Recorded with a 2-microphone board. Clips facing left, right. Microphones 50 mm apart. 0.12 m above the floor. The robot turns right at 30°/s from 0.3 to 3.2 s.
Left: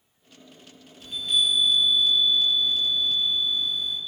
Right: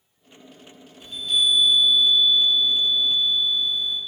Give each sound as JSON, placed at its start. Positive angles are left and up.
{"t": 1.0, "sound": "a chime", "side_deg": 5, "distance_m": 1.5}